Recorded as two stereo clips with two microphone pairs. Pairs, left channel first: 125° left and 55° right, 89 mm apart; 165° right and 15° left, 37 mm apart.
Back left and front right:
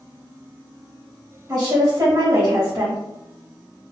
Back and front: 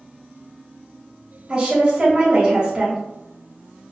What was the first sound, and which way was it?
A woman speaking, 35° right.